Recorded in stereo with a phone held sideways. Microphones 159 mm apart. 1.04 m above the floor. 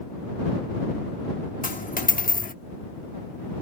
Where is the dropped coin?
60° left (ahead or behind).